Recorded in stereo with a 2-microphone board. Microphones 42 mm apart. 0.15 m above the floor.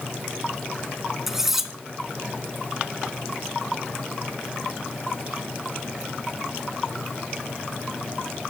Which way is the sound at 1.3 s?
10° right (ahead or behind).